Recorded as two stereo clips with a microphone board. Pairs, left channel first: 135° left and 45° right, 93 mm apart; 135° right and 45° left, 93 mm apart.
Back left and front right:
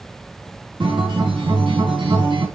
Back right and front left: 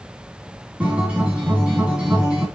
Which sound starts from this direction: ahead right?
A guitar, at 0.8 s.